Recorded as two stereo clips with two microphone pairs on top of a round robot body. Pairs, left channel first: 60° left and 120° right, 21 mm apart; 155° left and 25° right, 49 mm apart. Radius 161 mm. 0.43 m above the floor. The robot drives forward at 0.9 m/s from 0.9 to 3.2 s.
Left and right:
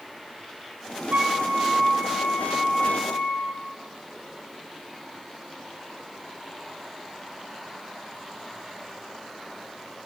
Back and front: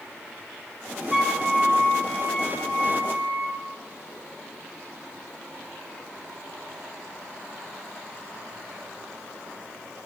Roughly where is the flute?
Behind right.